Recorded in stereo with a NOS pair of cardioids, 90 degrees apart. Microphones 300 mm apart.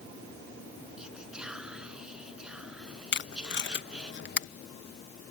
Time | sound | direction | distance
1.0 | whispering | 5° right | ?
3.1 | tape being pulled | 35° left | ?